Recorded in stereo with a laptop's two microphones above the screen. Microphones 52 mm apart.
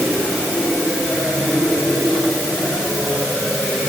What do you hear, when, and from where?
Only background noise.